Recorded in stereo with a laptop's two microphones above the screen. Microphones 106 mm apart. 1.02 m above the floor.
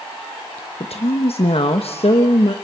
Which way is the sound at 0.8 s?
70° left (ahead or behind).